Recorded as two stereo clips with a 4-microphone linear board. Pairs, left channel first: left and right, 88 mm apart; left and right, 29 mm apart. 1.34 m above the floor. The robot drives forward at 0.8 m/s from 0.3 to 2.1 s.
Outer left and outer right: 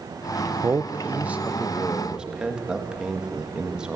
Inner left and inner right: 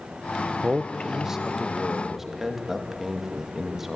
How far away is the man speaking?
About 0.6 m.